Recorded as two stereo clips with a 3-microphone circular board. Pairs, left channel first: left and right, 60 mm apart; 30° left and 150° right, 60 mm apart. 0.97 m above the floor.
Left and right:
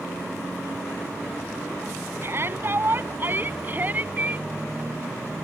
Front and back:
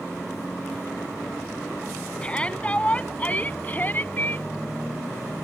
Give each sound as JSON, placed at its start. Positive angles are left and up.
{"t": 2.2, "sound": "a shout", "azimuth_deg": -45}